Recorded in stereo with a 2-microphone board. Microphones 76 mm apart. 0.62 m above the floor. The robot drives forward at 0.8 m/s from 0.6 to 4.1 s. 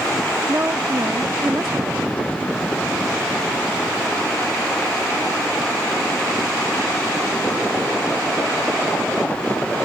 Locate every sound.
0.5 s a woman speaking: 35° right (ahead or behind); by 2.4 s 20° right (ahead or behind)